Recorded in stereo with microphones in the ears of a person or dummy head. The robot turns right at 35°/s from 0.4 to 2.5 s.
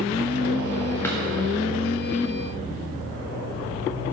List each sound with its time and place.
1.0 s a drawer: 15° left (ahead or behind), 1.0 m; by 1.2 s 10° left (ahead or behind), 1.0 m